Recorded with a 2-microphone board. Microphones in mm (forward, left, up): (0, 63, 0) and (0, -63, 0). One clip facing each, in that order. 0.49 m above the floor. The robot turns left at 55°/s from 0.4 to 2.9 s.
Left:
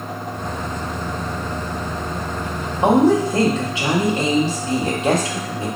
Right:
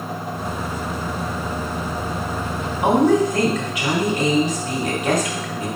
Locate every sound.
2.8 s a woman speaking: 30° left (ahead or behind), 0.9 m